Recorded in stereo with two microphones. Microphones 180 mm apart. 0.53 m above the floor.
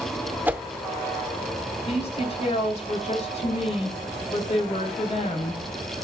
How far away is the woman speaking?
About 3.5 m.